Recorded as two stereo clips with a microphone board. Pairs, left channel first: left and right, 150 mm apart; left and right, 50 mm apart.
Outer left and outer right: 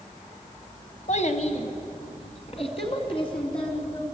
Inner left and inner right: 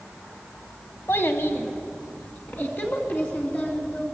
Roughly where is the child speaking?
Left.